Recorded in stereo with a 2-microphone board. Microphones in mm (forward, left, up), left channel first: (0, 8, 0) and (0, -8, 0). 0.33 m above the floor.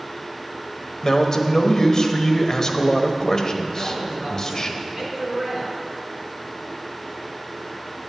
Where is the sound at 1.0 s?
35° left (ahead or behind), 1.1 m.